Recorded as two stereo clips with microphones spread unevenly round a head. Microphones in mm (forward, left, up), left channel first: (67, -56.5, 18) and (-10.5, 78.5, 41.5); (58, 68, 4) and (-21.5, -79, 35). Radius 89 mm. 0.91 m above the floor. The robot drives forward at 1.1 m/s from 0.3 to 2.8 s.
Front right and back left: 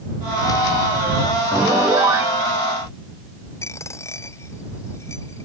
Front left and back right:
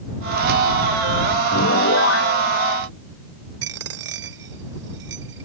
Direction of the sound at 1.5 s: 45° left.